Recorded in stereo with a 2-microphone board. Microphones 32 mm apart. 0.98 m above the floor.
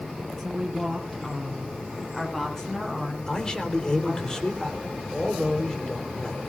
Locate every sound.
0.4 s a woman speaking: 5° right (ahead or behind), 7.5 m; by 4.3 s 20° left (ahead or behind), 11.5 m
3.3 s a man speaking: 20° left (ahead or behind), 3.5 m